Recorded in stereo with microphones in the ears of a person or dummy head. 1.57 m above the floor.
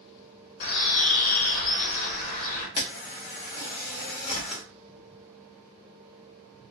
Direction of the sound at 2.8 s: 20° left (ahead or behind).